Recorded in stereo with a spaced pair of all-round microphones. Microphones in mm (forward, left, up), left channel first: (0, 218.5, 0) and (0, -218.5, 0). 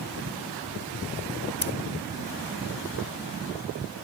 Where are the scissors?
35° left (ahead or behind).